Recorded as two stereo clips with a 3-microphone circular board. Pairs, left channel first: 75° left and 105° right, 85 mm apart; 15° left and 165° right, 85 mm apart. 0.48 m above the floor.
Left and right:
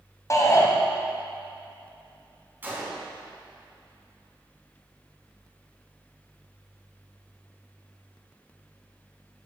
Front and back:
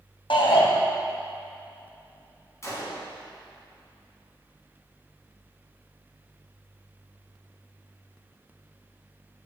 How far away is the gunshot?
About 3.5 m.